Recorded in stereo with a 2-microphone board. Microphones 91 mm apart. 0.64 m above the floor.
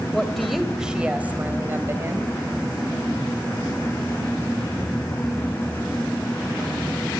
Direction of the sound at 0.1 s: 5° left (ahead or behind).